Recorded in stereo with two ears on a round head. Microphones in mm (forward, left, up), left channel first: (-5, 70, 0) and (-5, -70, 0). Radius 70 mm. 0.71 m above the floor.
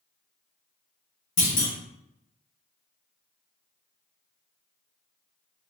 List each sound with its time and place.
1.4 s a clunk: 50° left (ahead or behind), 2.5 m